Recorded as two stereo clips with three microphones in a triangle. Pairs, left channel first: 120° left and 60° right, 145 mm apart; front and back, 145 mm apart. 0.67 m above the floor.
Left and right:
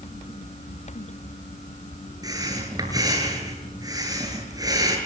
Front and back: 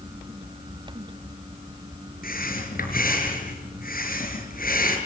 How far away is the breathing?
About 6 m.